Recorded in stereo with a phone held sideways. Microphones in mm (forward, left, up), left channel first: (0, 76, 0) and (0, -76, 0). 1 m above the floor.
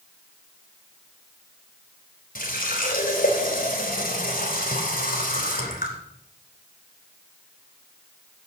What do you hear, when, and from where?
2.4 s a running tap: 75° left (ahead or behind), 3 m